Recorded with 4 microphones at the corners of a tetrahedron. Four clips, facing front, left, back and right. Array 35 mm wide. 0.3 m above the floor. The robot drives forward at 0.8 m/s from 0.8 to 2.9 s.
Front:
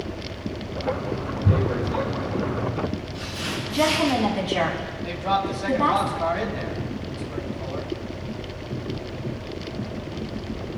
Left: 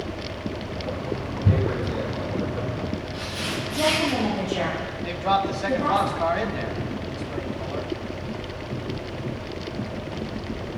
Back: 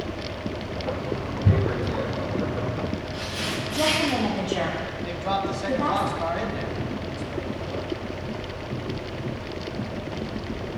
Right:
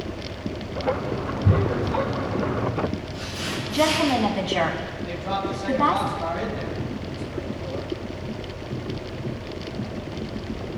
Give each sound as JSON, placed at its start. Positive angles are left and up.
{"t": 1.4, "sound": "tearing paper", "azimuth_deg": 160, "distance_m": 7.0}
{"t": 3.7, "sound": "a woman speaking", "azimuth_deg": -65, "distance_m": 3.0}
{"t": 5.0, "sound": "a man speaking", "azimuth_deg": 75, "distance_m": 2.5}